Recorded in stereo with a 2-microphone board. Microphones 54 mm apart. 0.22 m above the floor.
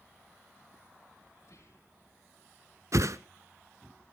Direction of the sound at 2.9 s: 65° right (ahead or behind).